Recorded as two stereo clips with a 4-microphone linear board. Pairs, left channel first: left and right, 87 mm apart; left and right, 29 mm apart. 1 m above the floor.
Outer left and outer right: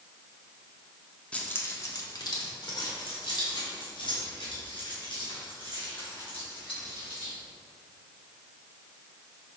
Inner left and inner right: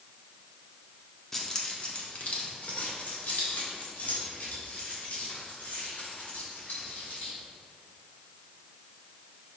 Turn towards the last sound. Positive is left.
turn(degrees=90)